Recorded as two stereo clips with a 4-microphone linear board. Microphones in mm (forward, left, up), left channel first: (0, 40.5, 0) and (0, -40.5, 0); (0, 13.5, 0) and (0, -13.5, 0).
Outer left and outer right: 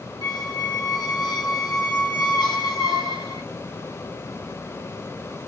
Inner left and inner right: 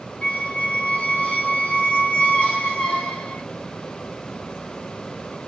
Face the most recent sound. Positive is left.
turn(degrees=60)  # may be behind; listen again after turning